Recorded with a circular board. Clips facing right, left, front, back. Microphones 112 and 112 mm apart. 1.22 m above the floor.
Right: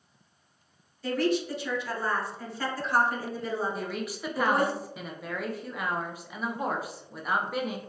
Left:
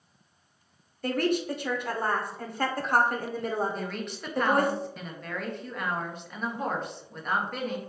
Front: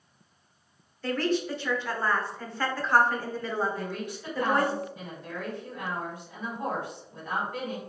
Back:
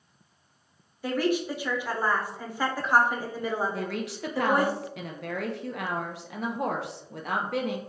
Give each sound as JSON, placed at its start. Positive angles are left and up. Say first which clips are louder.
{"t": 1.0, "sound": "a woman speaking", "louder": "even, back 1 dB", "azimuth_deg": 105, "distance_m": 0.6}
{"t": 3.7, "sound": "a woman speaking", "louder": "right 1 dB, back 2 dB", "azimuth_deg": -175, "distance_m": 0.6}